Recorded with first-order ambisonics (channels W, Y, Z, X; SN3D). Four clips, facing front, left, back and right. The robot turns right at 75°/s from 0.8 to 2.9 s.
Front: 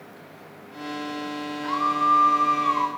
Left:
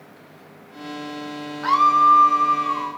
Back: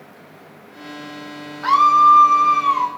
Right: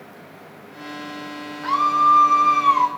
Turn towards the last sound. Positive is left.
turn(degrees=-105)